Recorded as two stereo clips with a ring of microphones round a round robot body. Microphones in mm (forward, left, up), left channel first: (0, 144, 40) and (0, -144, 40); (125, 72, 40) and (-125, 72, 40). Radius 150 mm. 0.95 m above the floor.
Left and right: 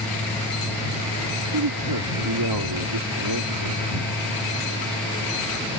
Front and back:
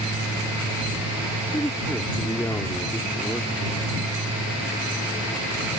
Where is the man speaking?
85° right.